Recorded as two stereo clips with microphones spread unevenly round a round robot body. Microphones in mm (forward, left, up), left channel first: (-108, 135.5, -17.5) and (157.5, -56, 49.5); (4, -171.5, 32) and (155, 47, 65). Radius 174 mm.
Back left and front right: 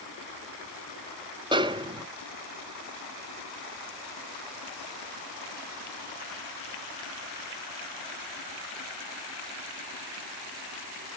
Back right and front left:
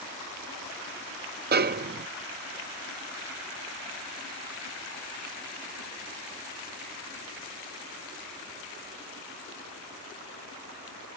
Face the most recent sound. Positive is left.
turn(degrees=50)